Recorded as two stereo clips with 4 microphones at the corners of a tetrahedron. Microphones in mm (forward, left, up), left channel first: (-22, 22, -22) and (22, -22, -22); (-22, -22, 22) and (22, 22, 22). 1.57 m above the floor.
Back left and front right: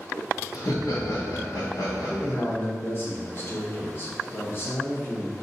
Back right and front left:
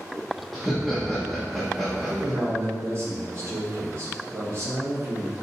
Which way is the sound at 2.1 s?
85° left.